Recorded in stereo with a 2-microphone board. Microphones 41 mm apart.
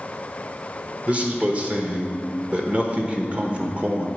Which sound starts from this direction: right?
A man speaking, at 1.1 s.